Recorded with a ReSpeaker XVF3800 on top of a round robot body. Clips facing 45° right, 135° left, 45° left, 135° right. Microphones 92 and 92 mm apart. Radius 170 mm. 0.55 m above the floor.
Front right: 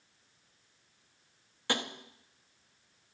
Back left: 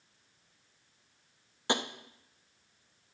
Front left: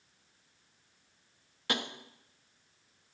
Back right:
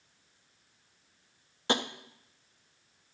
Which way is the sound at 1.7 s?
170° right.